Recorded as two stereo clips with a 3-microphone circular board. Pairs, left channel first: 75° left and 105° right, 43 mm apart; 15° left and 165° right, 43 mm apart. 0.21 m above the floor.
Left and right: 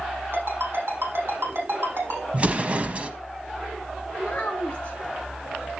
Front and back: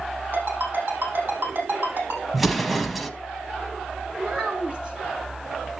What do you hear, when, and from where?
0.3 s a ringtone: 130° right, 6 m
2.3 s an explosion: 75° right, 0.9 m
4.2 s a child speaking: 135° left, 2 m